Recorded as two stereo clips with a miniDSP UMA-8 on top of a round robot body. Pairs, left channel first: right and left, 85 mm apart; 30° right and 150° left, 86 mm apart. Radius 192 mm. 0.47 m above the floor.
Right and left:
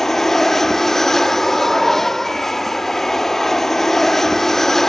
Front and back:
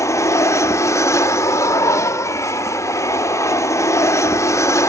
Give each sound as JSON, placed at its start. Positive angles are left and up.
{"t": 0.0, "sound": "an aircraft", "azimuth_deg": -5}